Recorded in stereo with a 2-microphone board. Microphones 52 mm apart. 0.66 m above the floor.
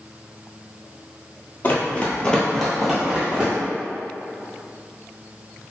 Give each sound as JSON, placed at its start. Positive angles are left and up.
{"t": 1.6, "sound": "running footsteps", "side_deg": 40, "distance_m": 1.0}